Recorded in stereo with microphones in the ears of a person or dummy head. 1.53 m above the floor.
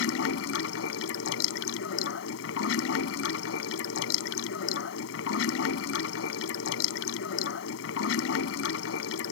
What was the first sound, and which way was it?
Running water, 75° left (ahead or behind).